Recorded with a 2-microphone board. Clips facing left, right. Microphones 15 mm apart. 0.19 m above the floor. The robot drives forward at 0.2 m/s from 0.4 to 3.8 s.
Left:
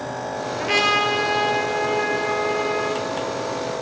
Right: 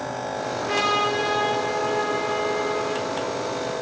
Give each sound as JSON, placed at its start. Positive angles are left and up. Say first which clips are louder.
{"t": 0.6, "sound": "a trumpet", "louder": "left 3 dB", "side_deg": 70, "distance_m": 1.6}